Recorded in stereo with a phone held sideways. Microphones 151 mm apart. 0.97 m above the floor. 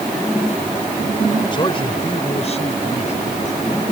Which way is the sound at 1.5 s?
35° left (ahead or behind).